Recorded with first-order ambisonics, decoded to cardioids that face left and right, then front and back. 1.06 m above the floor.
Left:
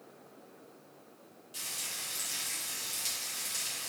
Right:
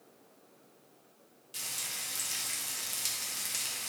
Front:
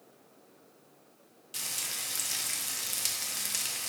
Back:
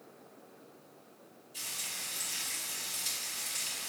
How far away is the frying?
About 0.8 m.